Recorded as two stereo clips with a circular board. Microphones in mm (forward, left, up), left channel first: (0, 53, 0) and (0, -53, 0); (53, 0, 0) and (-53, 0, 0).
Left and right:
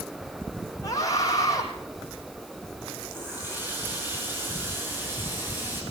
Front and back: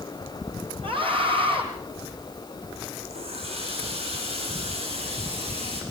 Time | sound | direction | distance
0.8 | a scream | 145° left | 6.5 m
3.1 | a running tap | 160° right | 8 m